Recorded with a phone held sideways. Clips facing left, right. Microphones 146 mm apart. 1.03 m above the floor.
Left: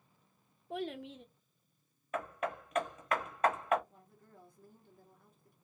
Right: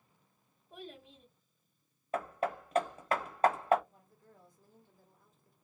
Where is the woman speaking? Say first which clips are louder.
Left 2 dB; 65° left (ahead or behind), 1.7 m.